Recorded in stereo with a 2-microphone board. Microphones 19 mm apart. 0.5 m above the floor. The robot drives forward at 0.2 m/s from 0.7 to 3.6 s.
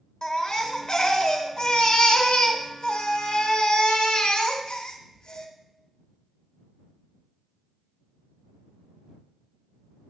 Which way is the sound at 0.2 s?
50° left (ahead or behind).